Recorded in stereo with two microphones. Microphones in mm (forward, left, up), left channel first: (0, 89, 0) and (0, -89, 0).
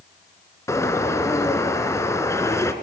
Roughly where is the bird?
Centre.